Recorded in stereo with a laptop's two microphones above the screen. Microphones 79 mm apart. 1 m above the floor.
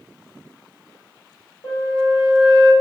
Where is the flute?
70° left (ahead or behind), 1.1 m.